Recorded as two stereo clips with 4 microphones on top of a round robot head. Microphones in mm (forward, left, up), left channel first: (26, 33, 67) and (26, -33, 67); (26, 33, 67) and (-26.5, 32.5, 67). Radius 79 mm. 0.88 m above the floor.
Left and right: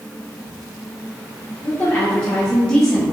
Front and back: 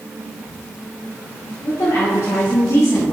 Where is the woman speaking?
20° left, 2.5 m; by 3.1 s straight ahead, 1.6 m.